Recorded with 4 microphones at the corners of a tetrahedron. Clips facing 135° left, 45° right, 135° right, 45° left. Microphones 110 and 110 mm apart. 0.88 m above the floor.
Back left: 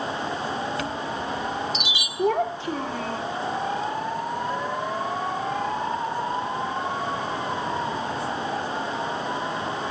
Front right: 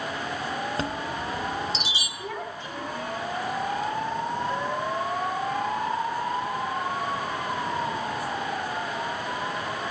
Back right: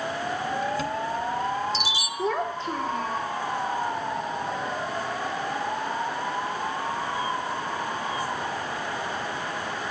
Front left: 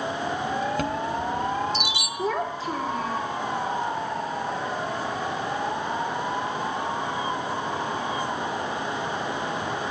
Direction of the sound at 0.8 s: 15° left.